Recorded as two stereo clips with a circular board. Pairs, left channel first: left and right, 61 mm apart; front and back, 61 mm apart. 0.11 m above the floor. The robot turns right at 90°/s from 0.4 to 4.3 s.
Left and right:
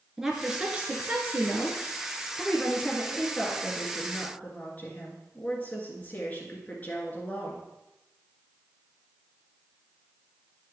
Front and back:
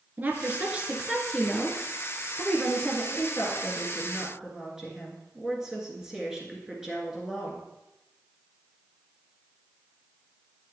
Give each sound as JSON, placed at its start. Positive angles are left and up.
{"t": 0.2, "sound": "a woman speaking", "azimuth_deg": -165, "distance_m": 1.4}
{"t": 3.1, "sound": "a woman speaking", "azimuth_deg": 0, "distance_m": 1.9}